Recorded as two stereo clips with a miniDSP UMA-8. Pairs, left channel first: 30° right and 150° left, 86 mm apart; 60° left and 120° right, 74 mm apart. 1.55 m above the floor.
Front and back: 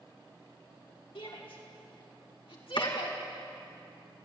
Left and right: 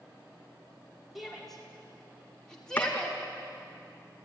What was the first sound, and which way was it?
A shout, 30° right.